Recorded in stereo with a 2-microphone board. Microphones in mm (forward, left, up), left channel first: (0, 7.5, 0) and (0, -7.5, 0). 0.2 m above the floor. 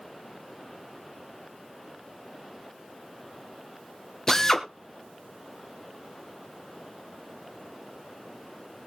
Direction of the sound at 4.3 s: 30° left (ahead or behind).